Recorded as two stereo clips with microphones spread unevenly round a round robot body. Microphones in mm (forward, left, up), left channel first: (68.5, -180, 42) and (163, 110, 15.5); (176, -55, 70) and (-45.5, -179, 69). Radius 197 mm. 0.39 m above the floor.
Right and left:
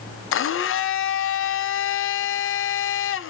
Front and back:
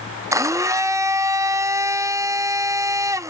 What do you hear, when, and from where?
0.3 s a blender: 75° right, 0.5 m